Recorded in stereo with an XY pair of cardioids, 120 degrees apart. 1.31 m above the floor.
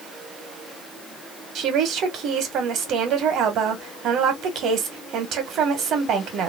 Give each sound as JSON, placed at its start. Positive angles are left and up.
{"t": 1.6, "sound": "a woman speaking", "azimuth_deg": -65, "distance_m": 1.3}